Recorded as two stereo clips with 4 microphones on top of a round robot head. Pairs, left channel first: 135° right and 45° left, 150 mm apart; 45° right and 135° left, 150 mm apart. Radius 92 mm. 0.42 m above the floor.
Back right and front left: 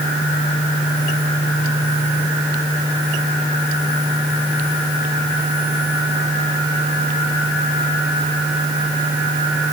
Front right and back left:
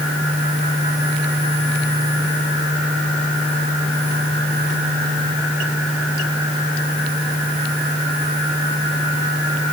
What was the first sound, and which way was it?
Only background noise.